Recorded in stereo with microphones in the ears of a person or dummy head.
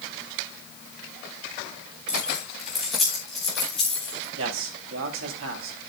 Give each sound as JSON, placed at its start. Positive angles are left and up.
{"t": 2.1, "sound": "keys jangling", "side_deg": -5, "distance_m": 2.5}
{"t": 4.4, "sound": "a man speaking", "side_deg": -75, "distance_m": 3.5}